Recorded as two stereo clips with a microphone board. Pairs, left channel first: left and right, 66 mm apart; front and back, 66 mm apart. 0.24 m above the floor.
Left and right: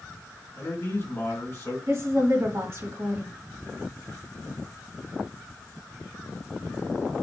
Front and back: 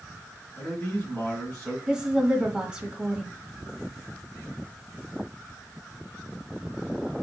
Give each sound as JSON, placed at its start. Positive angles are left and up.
{"t": 0.6, "sound": "a man speaking", "azimuth_deg": 60, "distance_m": 2.5}
{"t": 1.9, "sound": "a woman speaking", "azimuth_deg": -115, "distance_m": 1.2}